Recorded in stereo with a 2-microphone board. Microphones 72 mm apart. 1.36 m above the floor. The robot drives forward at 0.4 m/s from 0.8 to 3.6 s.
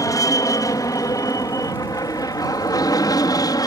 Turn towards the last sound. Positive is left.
turn(degrees=60)  # may be behind; listen again after turning